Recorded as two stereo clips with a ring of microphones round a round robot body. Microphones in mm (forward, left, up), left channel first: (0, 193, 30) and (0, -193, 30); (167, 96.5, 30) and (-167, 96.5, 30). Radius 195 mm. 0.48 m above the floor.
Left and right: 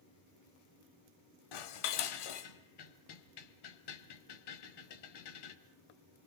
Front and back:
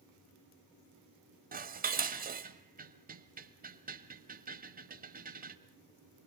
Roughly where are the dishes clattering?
Behind left.